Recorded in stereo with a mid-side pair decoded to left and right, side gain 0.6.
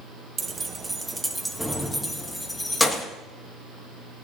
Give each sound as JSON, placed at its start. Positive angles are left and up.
{"t": 0.4, "sound": "keys jangling", "azimuth_deg": -30, "distance_m": 1.0}